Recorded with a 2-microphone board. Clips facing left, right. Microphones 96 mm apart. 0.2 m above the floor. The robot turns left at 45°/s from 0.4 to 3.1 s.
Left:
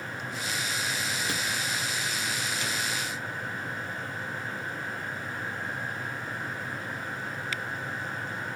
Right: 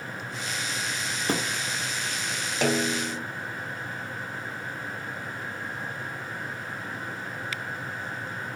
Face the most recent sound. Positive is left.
turn(degrees=-80)